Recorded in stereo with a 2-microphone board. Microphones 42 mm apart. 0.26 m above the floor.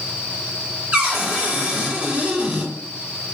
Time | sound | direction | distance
0.9 | a cupboard door | 30° right (ahead or behind) | 2 m